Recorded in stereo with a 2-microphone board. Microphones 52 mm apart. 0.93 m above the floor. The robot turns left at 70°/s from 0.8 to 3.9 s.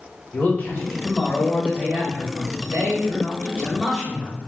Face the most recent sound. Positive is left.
turn(degrees=-175)